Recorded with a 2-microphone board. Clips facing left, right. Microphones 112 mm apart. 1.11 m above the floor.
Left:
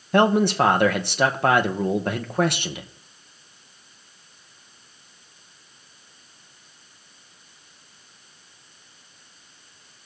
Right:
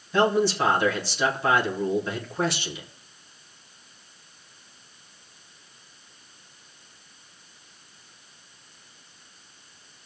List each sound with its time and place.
0.1 s a man speaking: 55° left (ahead or behind), 1.0 m